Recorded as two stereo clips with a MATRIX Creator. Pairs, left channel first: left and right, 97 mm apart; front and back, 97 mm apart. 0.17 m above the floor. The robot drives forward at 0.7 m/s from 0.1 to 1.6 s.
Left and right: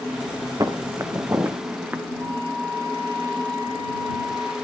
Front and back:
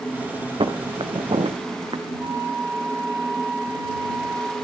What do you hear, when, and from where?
0.6 s footsteps: 145° right, 1.4 m; by 2.0 s 155° right, 1.0 m
2.2 s a flute: 130° right, 2 m